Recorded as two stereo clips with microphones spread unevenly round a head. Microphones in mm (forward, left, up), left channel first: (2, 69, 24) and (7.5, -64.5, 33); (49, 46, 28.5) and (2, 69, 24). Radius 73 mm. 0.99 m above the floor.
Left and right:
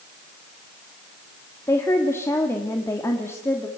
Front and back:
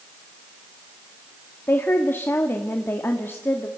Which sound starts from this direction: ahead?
A woman speaking, at 1.7 s.